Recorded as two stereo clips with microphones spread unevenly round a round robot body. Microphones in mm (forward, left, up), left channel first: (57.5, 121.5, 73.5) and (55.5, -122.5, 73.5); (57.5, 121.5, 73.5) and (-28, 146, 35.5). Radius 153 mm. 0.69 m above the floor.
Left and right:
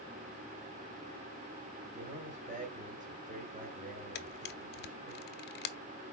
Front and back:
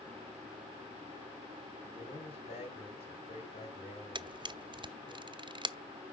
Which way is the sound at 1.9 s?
35° right.